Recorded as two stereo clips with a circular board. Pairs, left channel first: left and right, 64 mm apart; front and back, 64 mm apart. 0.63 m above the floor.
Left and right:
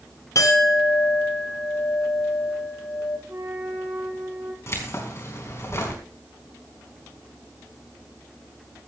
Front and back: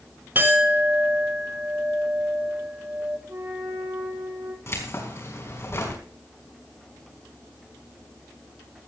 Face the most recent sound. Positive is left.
turn(degrees=45)